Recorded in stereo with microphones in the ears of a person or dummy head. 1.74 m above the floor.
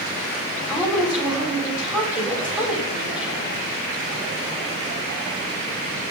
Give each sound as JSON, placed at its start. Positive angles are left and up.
{"t": 0.7, "sound": "a woman speaking", "side_deg": 0, "distance_m": 6.5}